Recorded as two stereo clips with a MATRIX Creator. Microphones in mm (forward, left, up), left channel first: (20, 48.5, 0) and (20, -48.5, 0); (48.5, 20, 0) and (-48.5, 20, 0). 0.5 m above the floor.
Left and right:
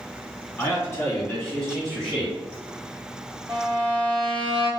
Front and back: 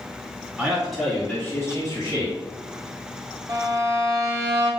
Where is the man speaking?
115° left, 1.5 m; by 2.4 s straight ahead, 1.8 m.